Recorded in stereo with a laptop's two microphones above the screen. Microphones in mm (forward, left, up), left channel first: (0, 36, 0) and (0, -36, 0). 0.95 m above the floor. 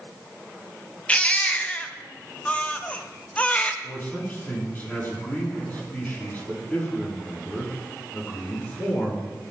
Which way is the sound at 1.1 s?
20° left (ahead or behind).